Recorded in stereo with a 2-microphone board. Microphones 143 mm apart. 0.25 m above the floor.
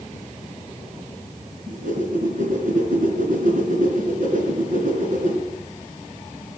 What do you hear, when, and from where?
1.7 s a whoosh: 70° right (ahead or behind), 3 m